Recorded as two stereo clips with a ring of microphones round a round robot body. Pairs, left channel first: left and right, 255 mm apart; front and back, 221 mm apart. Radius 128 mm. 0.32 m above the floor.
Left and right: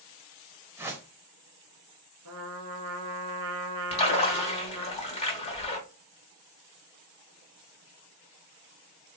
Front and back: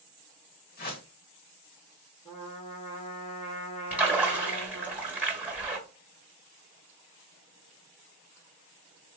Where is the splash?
110° left, 1.2 m.